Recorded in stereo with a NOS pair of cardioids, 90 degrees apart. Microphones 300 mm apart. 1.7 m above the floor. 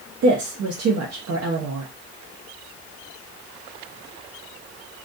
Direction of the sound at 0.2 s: 55° right.